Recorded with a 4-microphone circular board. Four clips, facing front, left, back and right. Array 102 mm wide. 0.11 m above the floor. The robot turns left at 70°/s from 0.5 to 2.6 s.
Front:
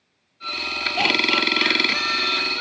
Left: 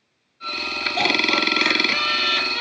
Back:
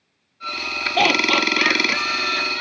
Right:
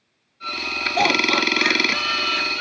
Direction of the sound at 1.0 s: 165° right.